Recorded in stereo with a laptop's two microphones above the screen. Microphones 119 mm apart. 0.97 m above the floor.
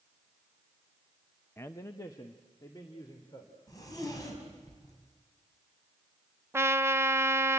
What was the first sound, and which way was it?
A man speaking, 20° left (ahead or behind).